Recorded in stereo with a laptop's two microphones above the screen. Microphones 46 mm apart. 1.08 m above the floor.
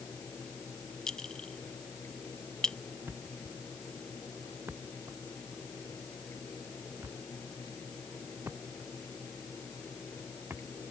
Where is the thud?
65° right (ahead or behind).